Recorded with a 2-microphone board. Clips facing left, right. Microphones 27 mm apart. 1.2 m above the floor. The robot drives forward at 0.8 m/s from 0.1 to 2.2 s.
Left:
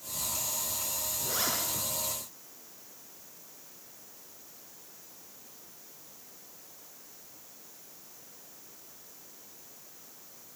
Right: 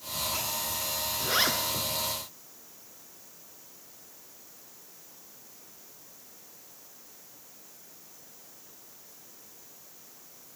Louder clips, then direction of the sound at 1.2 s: Right 7 dB; 45° right (ahead or behind).